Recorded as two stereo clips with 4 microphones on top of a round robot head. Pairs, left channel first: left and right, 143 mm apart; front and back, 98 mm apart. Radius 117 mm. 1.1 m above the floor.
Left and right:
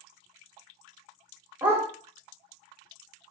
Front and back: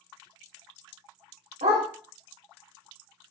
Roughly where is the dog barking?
Behind.